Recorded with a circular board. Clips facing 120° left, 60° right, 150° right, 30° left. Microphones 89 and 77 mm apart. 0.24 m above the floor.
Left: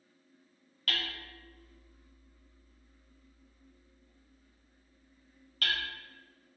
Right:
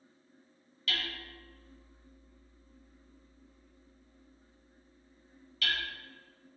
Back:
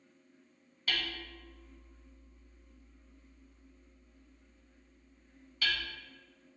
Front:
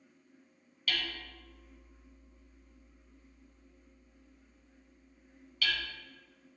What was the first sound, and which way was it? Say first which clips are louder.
Hammering: even, even; 155° left.